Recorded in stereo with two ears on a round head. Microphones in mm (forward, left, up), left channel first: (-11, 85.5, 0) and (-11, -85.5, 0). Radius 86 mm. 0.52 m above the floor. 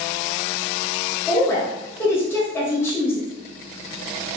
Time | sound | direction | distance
1.3 | a woman speaking | 15° left (ahead or behind) | 1.1 m